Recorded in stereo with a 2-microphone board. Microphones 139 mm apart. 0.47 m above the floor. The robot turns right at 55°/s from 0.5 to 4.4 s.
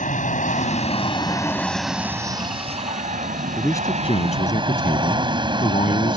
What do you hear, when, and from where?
0.0 s an aircraft: 60° left (ahead or behind); by 6.2 s 35° right (ahead or behind)
3.6 s a man speaking: 15° left; by 6.2 s 60° left